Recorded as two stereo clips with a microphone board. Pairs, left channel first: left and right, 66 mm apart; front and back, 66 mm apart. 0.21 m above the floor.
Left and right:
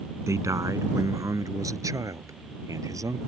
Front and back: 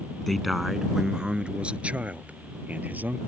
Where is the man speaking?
85° right; by 3.2 s 115° right.